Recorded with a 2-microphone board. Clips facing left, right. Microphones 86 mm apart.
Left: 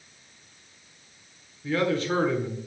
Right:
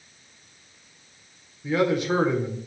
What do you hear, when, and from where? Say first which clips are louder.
1.6 s a man speaking: right 3 dB; 15° right (ahead or behind), 1.1 m